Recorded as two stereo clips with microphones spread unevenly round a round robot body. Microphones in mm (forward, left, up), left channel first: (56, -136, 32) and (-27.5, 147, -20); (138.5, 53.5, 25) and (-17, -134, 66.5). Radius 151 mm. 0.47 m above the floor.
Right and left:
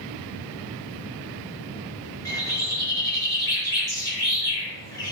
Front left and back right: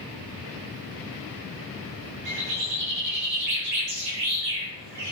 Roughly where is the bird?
Behind right.